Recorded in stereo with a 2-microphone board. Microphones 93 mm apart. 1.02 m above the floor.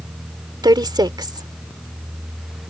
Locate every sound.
0.6 s a woman speaking: 50° right (ahead or behind)